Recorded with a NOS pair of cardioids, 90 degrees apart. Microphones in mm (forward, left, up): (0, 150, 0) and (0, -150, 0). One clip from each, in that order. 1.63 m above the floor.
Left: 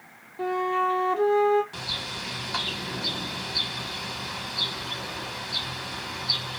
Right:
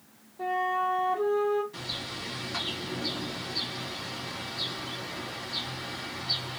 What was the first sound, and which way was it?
A flute, 60° left.